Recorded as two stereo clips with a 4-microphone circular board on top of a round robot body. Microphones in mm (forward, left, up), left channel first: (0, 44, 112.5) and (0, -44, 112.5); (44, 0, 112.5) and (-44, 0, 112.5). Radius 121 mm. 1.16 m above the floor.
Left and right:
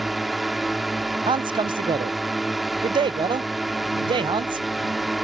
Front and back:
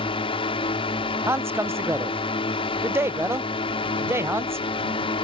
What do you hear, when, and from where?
0.0 s a drone: straight ahead
1.3 s a man speaking: 120° right